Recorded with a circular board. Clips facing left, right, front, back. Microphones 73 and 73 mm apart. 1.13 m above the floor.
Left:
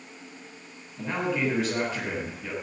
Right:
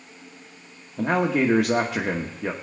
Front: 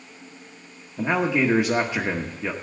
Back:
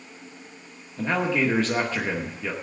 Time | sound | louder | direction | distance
1.0 | a man speaking | right 7 dB, front 2 dB | 70° right | 1.3 m